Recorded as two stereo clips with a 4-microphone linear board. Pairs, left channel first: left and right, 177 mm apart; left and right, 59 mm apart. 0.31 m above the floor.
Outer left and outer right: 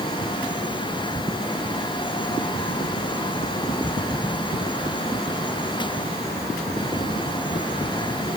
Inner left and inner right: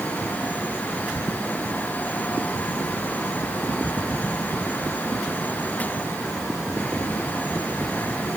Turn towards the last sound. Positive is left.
No sound to turn to.